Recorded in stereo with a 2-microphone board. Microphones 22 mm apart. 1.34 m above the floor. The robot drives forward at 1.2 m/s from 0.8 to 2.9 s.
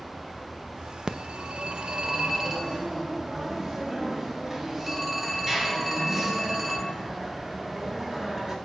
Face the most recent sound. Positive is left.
turn(degrees=-15)  # may be behind; listen again after turning